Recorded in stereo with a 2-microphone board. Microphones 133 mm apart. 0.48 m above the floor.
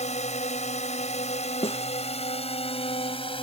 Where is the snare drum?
45° left (ahead or behind).